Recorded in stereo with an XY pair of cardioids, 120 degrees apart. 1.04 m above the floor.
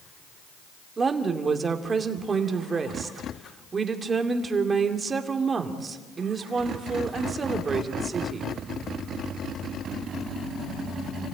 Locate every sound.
1.0 s a woman speaking: 30° right, 2.5 m